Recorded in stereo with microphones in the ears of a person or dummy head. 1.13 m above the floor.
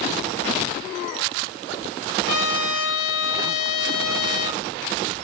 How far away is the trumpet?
About 3.5 m.